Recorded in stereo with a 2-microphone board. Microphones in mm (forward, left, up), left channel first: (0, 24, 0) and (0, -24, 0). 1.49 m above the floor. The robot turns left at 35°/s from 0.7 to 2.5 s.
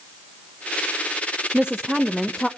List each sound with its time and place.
1.5 s a woman speaking: 160° right, 0.7 m; by 2.5 s 170° left, 0.7 m